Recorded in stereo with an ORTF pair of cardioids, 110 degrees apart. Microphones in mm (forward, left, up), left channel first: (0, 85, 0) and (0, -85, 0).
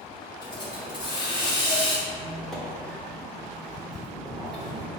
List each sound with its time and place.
0.4 s a hiss: 30° left, 1.6 m
2.1 s a squeak: straight ahead, 1.3 m